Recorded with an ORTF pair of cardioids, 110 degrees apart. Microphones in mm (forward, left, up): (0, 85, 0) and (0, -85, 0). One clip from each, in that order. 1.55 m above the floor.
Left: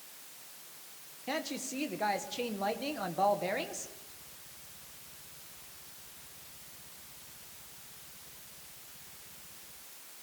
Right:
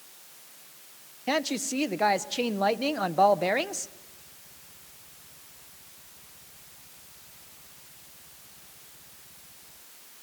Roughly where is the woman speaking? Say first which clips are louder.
Right 9 dB; ahead right.